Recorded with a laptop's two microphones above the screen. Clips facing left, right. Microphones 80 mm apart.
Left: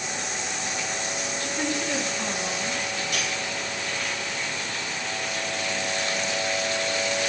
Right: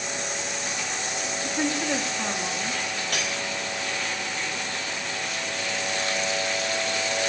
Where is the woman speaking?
25° right (ahead or behind), 2.0 m; by 2.8 s 30° right (ahead or behind), 3 m.